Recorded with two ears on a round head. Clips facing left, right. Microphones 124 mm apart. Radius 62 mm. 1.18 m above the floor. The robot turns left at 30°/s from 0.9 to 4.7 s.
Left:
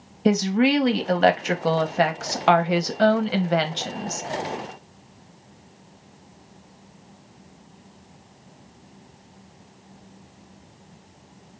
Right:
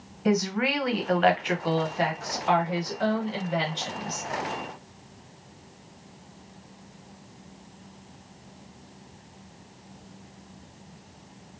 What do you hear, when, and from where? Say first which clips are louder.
0.2 s a woman speaking: left 6 dB; 150° left, 0.5 m; by 4.2 s 50° left, 0.5 m